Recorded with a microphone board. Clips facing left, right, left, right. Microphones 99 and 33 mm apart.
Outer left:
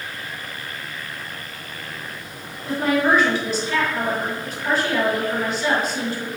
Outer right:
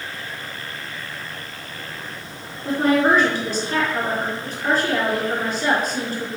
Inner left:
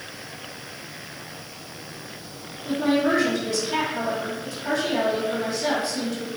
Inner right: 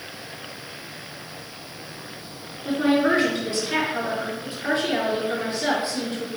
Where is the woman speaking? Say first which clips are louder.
Outer right 2 dB, inner right 2 dB; 45° right (ahead or behind), 3 m.